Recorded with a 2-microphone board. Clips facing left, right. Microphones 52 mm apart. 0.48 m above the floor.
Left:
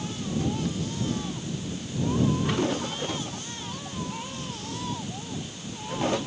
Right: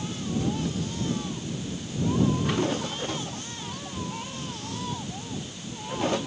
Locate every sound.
Only background noise.